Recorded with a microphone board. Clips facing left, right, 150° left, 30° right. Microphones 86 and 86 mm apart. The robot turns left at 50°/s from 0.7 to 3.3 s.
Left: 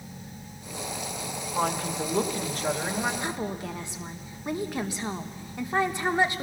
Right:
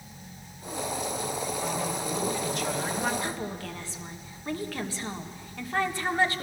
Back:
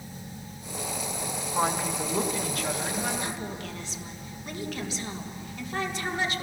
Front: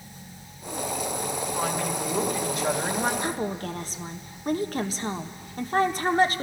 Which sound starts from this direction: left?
A woman speaking, at 1.5 s.